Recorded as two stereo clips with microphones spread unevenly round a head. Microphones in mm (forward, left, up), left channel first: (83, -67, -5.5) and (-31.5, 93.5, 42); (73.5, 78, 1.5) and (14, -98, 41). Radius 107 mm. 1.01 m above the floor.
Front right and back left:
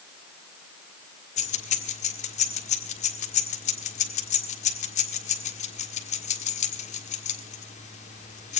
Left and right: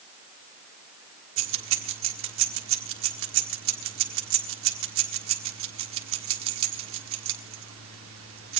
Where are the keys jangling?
115° right, 1.6 m.